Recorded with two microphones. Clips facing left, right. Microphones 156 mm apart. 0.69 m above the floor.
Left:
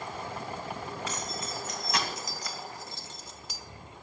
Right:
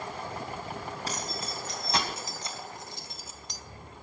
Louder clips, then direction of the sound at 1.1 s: Even; 35° right (ahead or behind).